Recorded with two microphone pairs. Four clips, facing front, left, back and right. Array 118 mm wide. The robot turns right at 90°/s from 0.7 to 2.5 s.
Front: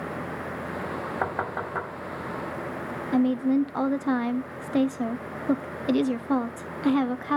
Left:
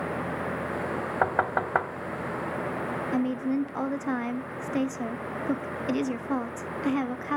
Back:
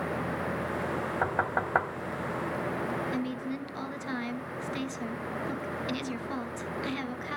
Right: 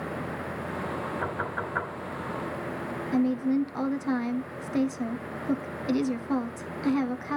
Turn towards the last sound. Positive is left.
turn(degrees=10)